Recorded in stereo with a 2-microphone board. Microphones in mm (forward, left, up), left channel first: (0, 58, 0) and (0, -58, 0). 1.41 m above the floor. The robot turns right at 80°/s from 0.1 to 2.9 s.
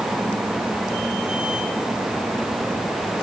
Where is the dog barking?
No dog barking in this recording.